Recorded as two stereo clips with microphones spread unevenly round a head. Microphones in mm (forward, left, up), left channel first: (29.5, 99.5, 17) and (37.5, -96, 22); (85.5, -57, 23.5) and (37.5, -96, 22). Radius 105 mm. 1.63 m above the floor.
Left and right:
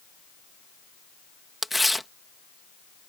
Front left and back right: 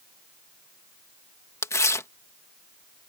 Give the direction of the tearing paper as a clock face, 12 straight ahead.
12 o'clock.